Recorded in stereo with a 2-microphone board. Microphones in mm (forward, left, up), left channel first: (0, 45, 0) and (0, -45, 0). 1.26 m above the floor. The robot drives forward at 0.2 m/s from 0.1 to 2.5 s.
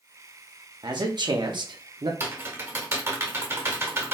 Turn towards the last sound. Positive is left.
turn(degrees=-30)  # may be behind; listen again after turning